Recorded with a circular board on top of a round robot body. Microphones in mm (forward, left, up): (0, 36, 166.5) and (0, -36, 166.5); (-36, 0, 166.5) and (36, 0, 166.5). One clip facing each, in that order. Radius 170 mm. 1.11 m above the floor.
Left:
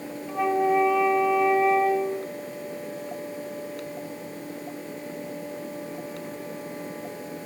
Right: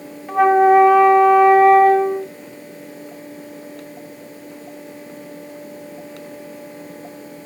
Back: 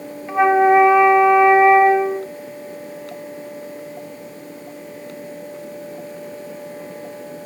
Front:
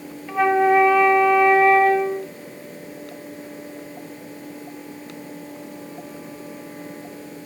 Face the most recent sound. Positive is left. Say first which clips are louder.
# right 11 dB, back 4 dB
turn(degrees=-110)